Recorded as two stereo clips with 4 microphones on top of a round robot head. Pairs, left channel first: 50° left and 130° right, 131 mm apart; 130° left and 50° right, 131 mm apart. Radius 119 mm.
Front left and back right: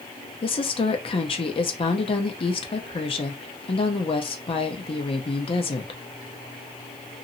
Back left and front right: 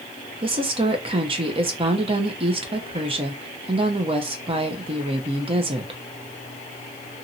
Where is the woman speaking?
Straight ahead, 0.7 m.